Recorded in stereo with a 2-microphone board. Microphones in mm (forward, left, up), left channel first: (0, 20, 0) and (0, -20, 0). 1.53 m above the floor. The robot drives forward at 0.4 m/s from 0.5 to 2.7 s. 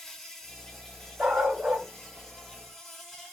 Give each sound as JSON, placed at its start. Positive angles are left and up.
{"t": 0.0, "sound": "an insect", "side_deg": 10, "distance_m": 1.0}
{"t": 1.2, "sound": "a dog barking", "side_deg": -45, "distance_m": 1.8}